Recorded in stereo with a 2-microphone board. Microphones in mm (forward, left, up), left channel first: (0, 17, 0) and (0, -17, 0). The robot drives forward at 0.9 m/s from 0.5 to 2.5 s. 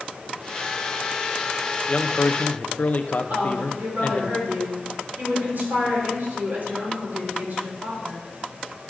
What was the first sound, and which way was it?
A man speaking, 35° left (ahead or behind).